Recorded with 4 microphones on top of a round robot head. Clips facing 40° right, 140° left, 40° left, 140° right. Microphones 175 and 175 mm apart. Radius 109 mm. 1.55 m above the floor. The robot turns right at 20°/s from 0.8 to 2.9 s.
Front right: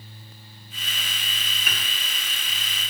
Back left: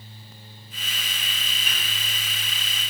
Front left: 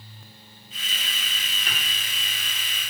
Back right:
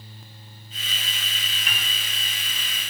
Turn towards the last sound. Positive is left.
turn(degrees=15)